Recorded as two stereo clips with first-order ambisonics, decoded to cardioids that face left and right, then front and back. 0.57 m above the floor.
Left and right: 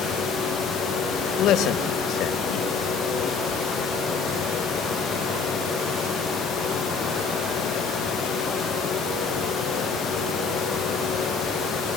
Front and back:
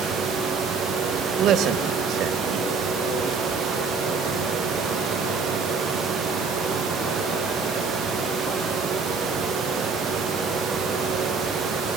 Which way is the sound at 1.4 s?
130° left.